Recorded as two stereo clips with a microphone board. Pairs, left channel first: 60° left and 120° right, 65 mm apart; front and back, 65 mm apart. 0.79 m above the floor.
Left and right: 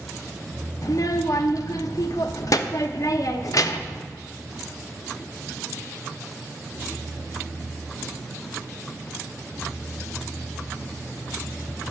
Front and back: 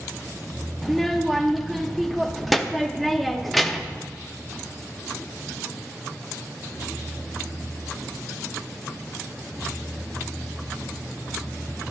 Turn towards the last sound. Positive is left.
turn(degrees=90)